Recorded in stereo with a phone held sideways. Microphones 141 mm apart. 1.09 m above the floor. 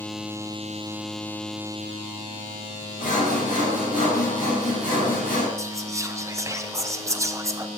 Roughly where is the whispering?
Right.